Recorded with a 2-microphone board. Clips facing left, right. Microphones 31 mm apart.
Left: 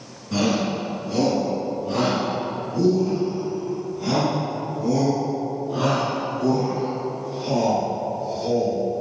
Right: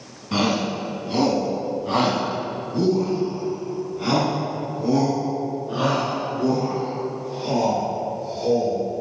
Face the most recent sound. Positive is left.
turn(degrees=-30)  # may be behind; listen again after turning